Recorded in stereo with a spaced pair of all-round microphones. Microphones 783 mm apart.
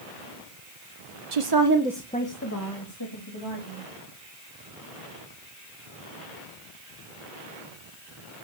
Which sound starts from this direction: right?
A woman speaking, at 1.3 s.